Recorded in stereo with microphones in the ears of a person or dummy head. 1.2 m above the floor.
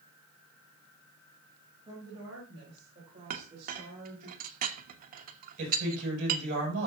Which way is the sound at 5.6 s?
45° right (ahead or behind).